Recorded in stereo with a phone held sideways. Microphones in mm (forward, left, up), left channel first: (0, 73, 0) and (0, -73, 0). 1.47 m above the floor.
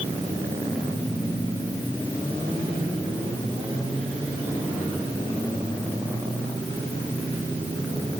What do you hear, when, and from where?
Only background noise.